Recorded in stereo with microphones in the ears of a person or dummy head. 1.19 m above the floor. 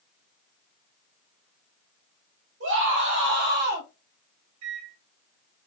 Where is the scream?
65° right (ahead or behind), 2.5 m; by 3.9 s 40° right (ahead or behind), 1.3 m.